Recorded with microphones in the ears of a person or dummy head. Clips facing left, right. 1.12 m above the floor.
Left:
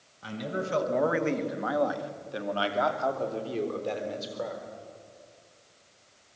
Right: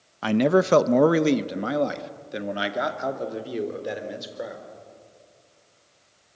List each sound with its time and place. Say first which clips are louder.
0.2 s a man speaking: right 14 dB; 75° right (ahead or behind), 0.8 m; by 4.6 s 15° right (ahead or behind), 3.5 m